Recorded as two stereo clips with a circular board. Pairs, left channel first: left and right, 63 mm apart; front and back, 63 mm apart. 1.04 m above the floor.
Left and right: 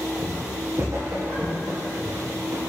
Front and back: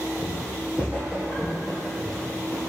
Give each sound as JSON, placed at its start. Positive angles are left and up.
{"t": 0.2, "sound": "footsteps", "azimuth_deg": -135, "distance_m": 2.5}